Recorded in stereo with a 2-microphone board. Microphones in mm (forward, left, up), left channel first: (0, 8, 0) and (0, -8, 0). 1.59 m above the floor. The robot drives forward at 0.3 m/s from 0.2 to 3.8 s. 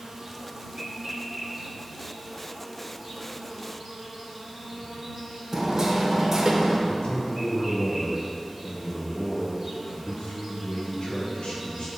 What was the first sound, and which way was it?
An insect, 40° right (ahead or behind).